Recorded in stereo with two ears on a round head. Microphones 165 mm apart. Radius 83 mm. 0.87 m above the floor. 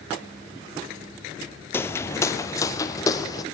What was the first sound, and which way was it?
Footsteps, 15° left (ahead or behind).